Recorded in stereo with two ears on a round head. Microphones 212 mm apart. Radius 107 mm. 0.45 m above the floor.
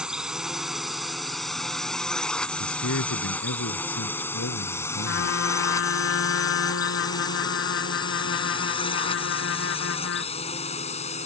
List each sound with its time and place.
0.0 s a drone: 5° right (ahead or behind); by 11.3 s 30° left (ahead or behind)
2.6 s a man speaking: 55° left (ahead or behind)
5.0 s a trumpet: 60° left (ahead or behind)